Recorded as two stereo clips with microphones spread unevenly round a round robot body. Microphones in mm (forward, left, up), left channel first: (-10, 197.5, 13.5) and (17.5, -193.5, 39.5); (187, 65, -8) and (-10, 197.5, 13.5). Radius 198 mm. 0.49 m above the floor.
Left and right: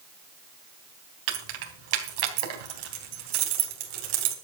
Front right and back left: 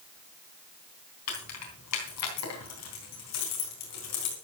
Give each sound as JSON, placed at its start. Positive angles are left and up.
{"t": 1.3, "sound": "keys jangling", "azimuth_deg": -70, "distance_m": 3.5}